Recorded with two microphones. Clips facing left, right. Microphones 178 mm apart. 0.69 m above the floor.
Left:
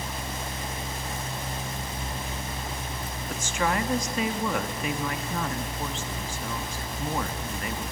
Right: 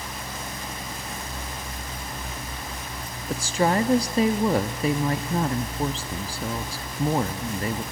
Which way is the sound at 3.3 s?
35° right (ahead or behind).